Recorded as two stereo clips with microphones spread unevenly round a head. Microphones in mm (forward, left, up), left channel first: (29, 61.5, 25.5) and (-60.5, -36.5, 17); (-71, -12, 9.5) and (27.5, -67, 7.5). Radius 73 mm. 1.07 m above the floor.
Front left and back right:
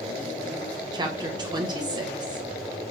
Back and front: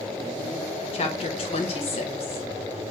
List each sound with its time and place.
0.9 s a woman speaking: 175° left, 1.1 m